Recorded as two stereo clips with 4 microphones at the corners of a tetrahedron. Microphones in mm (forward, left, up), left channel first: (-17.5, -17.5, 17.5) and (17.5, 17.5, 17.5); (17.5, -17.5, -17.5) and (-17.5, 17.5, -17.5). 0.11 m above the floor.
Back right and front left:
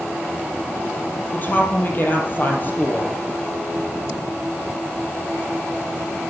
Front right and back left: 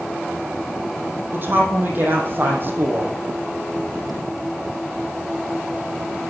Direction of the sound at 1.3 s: Straight behind.